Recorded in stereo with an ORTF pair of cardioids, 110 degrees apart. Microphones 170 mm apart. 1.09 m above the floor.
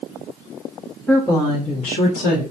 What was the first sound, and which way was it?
A woman speaking, 10° left.